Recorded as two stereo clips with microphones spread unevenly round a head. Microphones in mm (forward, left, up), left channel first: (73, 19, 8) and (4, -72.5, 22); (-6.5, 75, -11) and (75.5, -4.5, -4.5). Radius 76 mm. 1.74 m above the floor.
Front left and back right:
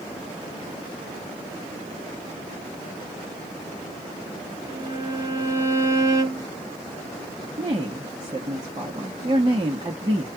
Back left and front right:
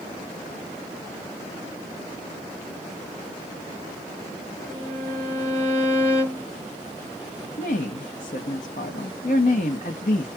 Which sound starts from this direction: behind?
A woman speaking, at 7.6 s.